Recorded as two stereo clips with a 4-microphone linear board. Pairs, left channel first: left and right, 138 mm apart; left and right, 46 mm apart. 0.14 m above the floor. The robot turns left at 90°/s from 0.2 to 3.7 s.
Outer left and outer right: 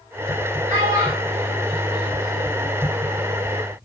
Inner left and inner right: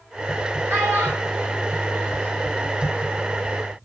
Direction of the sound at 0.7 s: 55° right (ahead or behind).